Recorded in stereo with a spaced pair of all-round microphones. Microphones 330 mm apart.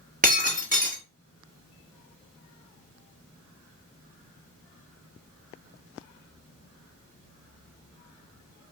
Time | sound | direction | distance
0.2 | breaking glass | 25° right (ahead or behind) | 1.3 m